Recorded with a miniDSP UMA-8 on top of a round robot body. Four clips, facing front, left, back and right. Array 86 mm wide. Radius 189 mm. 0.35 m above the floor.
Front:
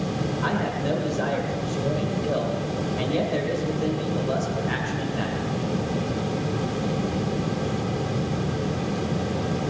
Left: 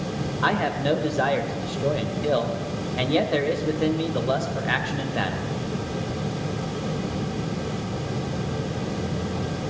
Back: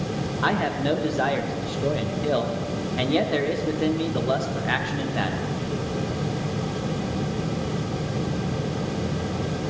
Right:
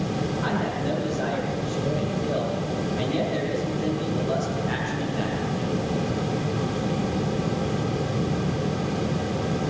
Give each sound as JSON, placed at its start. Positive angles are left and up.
{"t": 0.4, "sound": "a man speaking", "azimuth_deg": 130, "distance_m": 1.7}